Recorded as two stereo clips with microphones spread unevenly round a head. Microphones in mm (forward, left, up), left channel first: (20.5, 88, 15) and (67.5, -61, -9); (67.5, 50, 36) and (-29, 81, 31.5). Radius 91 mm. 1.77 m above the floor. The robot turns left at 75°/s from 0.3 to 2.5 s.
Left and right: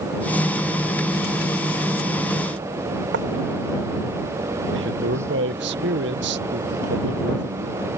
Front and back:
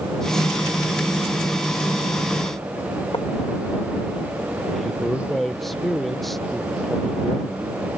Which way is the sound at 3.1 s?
80° right.